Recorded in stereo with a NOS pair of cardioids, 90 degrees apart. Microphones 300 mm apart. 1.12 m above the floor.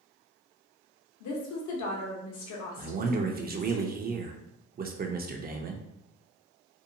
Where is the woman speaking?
65° left, 1.0 m.